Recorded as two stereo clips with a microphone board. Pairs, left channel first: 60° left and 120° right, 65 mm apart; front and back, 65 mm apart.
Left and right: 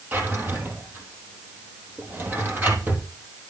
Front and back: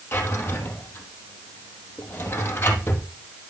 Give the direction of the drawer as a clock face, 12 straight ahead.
2 o'clock.